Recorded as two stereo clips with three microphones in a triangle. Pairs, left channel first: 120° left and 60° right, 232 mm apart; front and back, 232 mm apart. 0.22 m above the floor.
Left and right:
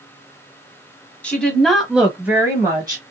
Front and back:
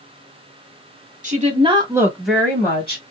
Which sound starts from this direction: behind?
A woman speaking, at 1.2 s.